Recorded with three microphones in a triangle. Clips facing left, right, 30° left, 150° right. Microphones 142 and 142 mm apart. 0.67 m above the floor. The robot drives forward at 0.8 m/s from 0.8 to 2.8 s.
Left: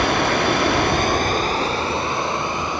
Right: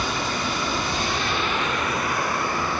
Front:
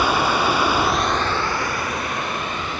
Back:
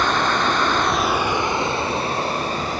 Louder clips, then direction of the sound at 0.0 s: Left 8 dB, front 1 dB; 110° left.